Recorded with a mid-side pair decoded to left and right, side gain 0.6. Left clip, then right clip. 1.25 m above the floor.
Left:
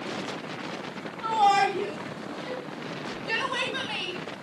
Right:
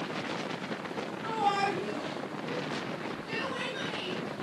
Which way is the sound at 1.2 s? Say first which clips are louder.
Left 8 dB; 60° left.